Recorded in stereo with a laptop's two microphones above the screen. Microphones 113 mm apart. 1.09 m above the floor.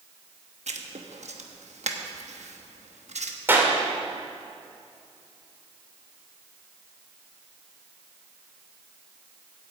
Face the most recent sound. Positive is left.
turn(degrees=-20)  # may be behind; listen again after turning